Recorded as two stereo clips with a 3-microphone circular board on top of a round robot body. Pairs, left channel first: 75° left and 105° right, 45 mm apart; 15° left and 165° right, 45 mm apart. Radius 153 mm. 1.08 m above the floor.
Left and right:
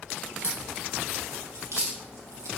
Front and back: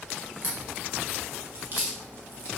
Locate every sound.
0.4 s a crack: 120° right, 2.5 m